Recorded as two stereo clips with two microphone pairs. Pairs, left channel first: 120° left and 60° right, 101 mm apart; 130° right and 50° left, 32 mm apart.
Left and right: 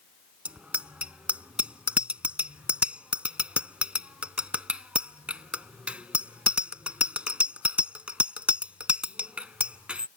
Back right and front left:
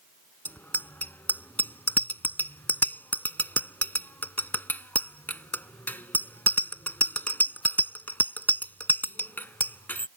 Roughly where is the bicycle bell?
Behind right.